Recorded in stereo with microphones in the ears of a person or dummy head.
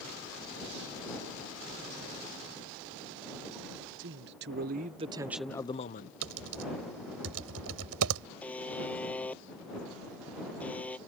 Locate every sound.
4.0 s a man speaking: 65° right (ahead or behind); by 6.1 s 45° left (ahead or behind)
6.2 s typing on a keyboard: 75° right (ahead or behind)
8.4 s a buzzer: 10° left (ahead or behind)